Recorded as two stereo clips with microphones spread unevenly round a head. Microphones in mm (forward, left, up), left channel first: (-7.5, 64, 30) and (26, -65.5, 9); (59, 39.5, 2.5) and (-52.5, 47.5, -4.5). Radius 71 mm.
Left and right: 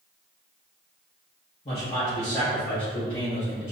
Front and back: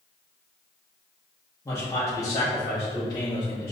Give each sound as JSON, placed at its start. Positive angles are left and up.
{"t": 1.6, "sound": "a man speaking", "azimuth_deg": 55, "distance_m": 2.5}